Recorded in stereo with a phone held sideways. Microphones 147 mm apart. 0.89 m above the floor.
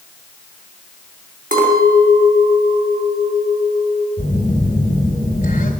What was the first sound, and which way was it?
A clink, 75° right (ahead or behind).